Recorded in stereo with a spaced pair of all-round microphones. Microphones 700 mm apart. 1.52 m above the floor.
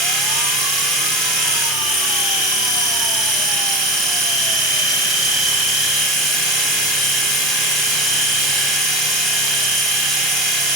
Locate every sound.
0.0 s a machine running: 30° right (ahead or behind), 3 m